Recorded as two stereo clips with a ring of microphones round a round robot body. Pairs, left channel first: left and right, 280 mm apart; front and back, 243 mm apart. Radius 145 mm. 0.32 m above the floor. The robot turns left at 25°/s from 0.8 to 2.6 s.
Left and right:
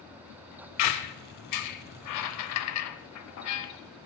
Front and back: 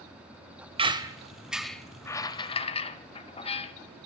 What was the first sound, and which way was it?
A squeak, 110° left.